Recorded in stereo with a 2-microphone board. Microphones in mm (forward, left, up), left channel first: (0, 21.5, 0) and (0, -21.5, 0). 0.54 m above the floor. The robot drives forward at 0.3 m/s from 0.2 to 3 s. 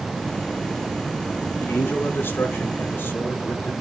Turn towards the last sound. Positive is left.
turn(degrees=55)  # may be behind; listen again after turning